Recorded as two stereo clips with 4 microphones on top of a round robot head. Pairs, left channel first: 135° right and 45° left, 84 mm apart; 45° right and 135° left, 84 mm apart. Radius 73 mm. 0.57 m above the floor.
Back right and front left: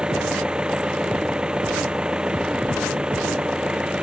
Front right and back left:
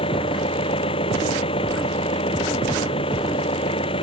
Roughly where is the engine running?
Ahead right.